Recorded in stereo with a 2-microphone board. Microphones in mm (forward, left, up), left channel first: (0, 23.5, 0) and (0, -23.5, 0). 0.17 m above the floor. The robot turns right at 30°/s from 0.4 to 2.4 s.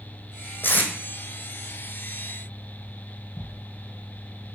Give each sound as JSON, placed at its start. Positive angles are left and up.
{"t": 0.6, "sound": "tape being pulled", "side_deg": 45, "distance_m": 1.7}